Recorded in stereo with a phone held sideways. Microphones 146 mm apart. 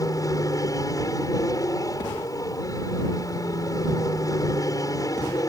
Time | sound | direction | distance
0.0 | an aircraft | 25° left (ahead or behind) | ?